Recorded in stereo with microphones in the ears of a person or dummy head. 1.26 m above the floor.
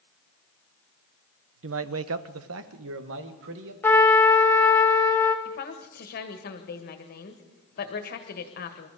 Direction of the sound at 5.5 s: 45° left (ahead or behind).